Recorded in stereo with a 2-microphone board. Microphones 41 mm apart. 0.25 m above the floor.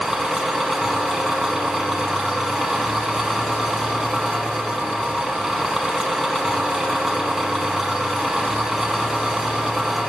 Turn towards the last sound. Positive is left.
turn(degrees=-5)  # may be behind; listen again after turning